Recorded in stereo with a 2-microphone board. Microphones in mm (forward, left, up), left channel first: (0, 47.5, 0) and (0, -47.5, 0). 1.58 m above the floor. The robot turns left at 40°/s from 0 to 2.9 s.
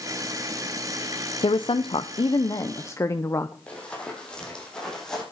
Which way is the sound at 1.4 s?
90° left.